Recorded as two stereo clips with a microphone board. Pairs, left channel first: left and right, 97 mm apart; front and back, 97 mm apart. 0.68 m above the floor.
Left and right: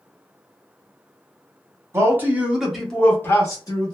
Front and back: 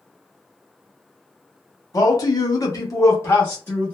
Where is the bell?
I don't hear a bell.